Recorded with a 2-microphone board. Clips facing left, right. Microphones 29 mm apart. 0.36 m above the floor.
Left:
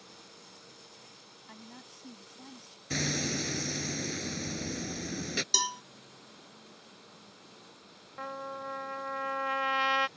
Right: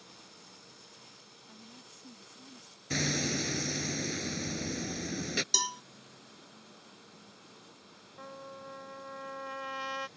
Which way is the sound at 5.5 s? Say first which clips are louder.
Left 4 dB; 15° left (ahead or behind).